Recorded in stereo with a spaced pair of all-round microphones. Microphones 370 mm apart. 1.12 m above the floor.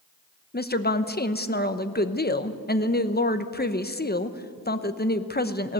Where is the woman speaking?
25° left (ahead or behind), 0.9 m.